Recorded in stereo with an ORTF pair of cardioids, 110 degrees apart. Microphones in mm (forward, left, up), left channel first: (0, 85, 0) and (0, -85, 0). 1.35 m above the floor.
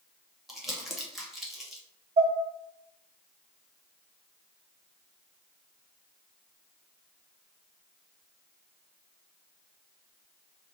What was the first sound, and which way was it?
Crumpling, straight ahead.